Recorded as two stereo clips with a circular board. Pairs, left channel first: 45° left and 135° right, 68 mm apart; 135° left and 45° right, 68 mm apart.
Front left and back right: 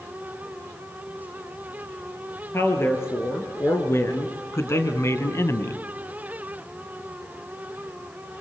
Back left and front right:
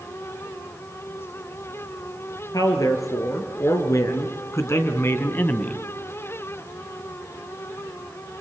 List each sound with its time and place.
2.5 s a man speaking: 100° left, 5 m; by 5.8 s 70° left, 1.7 m